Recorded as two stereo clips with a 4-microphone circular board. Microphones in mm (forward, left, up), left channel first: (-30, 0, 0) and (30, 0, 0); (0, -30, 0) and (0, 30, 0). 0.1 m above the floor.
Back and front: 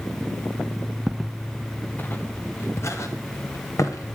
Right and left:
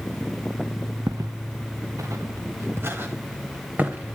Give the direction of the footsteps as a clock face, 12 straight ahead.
9 o'clock.